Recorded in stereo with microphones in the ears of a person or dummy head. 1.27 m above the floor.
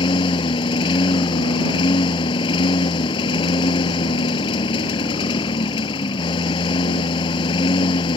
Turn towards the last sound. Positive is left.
turn(degrees=30)  # may be behind; listen again after turning